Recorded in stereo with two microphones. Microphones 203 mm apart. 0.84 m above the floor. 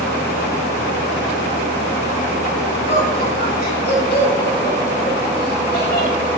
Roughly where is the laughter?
Left.